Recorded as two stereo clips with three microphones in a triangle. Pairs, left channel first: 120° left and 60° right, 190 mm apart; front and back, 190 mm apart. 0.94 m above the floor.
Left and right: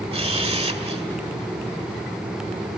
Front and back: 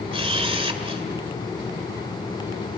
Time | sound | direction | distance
0.1 | a camera shutter | 120° right | 1.8 m